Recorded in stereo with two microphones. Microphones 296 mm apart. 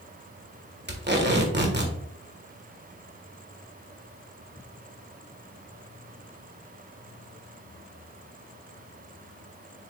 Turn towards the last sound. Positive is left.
turn(degrees=-40)  # may be behind; listen again after turning